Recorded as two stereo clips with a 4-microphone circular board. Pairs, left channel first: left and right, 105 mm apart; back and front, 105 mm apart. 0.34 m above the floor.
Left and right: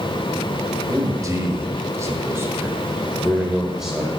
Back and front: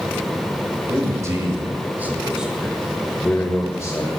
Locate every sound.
0.9 s a man speaking: 45° right, 1.5 m; by 4.1 s straight behind, 1.1 m